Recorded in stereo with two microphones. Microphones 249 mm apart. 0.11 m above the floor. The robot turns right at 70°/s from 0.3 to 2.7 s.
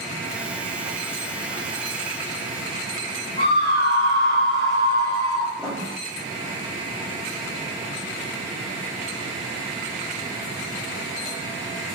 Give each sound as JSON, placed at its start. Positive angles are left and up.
{"t": 3.4, "sound": "a scream", "side_deg": 15, "distance_m": 1.9}
{"t": 5.6, "sound": "writing", "side_deg": 5, "distance_m": 1.7}